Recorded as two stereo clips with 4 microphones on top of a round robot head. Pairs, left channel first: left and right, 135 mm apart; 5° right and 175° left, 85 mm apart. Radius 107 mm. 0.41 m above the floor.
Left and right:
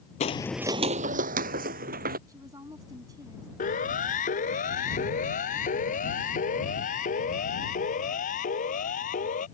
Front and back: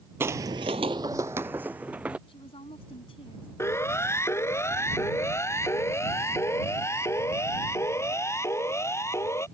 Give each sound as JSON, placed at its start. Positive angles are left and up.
{"t": 0.2, "sound": "footsteps", "azimuth_deg": 120}
{"t": 2.3, "sound": "a woman speaking", "azimuth_deg": -25}
{"t": 3.6, "sound": "a siren", "azimuth_deg": 55}